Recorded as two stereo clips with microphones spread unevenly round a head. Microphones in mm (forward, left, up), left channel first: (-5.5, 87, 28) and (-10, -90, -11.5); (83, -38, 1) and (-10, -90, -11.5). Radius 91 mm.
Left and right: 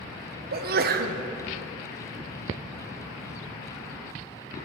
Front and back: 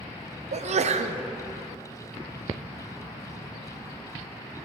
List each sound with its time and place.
0.5 s a sneeze: 135° right, 0.8 m